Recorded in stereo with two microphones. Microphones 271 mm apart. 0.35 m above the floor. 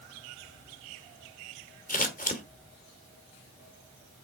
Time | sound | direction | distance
1.9 | scissors | 30° left (ahead or behind) | 1.5 m